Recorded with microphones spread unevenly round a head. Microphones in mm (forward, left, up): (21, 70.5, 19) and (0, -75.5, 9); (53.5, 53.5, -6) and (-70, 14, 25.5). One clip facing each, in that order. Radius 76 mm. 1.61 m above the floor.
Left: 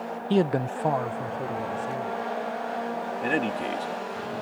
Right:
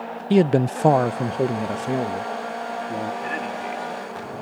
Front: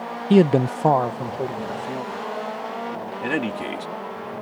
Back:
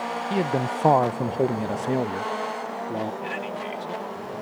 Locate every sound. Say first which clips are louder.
0.3 s a man speaking: right 6 dB, front 10 dB; 25° right; by 3.1 s 130° right
3.2 s a man speaking: left 2 dB, front 5 dB; 35° left